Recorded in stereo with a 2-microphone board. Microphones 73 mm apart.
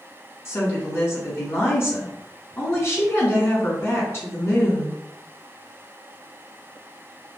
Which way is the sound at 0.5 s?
40° left (ahead or behind).